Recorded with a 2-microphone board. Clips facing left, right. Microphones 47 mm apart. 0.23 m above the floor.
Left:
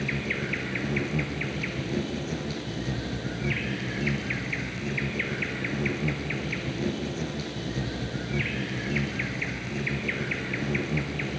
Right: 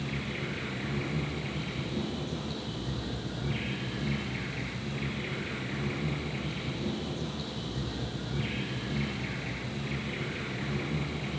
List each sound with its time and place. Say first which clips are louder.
0.0 s an insect: left 6 dB; 60° left (ahead or behind), 3 m